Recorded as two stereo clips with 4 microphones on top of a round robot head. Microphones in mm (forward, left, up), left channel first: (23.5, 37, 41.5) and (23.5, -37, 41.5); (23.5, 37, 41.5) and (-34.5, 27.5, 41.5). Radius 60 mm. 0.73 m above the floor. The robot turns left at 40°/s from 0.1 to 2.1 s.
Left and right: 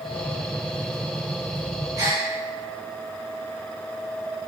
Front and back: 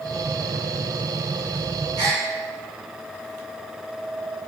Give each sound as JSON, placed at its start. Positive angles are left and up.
{"t": 2.0, "sound": "a gasp", "azimuth_deg": -145, "distance_m": 3.0}